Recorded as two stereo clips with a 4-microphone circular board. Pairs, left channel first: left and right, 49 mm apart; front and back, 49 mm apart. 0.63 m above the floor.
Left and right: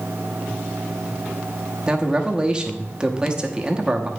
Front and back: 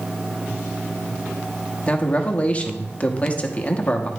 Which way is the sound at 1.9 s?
35° right.